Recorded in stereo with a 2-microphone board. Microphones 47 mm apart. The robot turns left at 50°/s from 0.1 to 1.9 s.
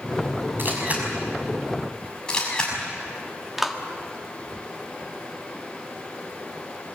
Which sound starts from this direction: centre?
A clap, at 3.6 s.